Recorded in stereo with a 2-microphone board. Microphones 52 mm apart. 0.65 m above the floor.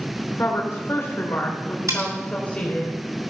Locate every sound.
0.4 s a woman speaking: 55° left (ahead or behind), 2.5 m; by 2.9 s 25° left (ahead or behind), 3 m
1.9 s cutlery clinking: 65° right (ahead or behind), 3 m